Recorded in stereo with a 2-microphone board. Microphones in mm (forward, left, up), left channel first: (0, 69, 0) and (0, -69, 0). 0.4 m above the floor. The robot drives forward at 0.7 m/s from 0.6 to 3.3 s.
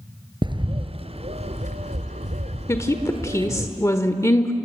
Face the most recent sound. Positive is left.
turn(degrees=20)  # may be behind; listen again after turning